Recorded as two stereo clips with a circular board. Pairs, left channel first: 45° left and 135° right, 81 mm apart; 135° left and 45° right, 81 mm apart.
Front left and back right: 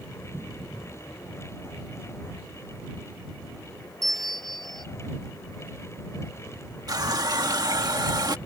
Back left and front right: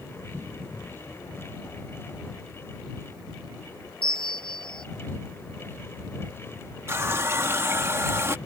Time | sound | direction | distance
4.0 | a bell | 130° left | ?
6.9 | a running tap | 100° right | ?